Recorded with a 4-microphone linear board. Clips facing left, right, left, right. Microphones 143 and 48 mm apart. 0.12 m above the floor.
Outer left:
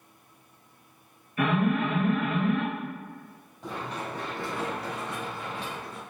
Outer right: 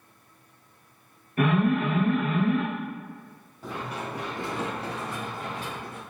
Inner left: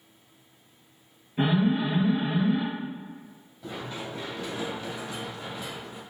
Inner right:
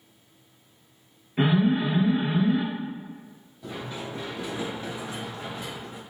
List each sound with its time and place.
1.4 s an alarm: 45° right (ahead or behind), 1.4 m
3.6 s running footsteps: centre (ahead or behind), 2.0 m; by 6.0 s 55° right (ahead or behind), 1.9 m